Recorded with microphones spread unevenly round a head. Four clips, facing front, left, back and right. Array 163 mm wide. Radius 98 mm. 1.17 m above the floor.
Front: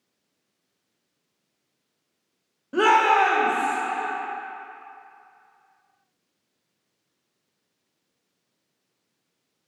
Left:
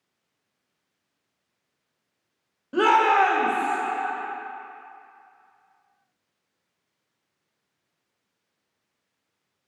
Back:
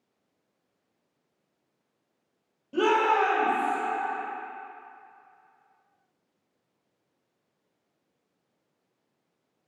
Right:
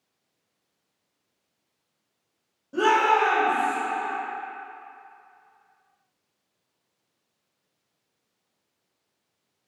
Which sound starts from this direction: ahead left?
A shout, at 2.7 s.